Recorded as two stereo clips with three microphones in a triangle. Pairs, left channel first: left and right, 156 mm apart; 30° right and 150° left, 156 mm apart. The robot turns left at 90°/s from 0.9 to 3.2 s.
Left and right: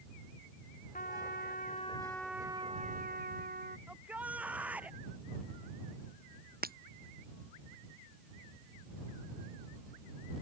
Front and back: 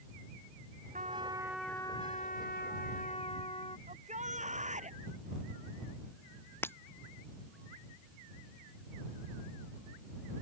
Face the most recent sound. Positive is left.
turn(degrees=-105)